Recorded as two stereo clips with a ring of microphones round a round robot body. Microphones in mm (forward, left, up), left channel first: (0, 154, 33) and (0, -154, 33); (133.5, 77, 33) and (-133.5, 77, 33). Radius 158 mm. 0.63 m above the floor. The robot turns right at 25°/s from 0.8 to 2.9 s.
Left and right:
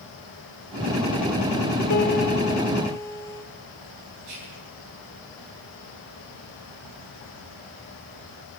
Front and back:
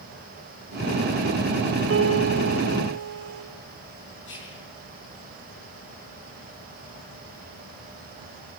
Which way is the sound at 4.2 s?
55° right.